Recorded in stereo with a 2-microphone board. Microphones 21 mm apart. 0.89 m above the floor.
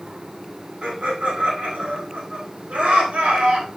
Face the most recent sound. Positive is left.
turn(degrees=-80)